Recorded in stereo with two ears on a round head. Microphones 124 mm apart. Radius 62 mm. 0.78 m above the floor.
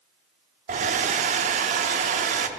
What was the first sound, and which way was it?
A hair dryer, 55° right (ahead or behind).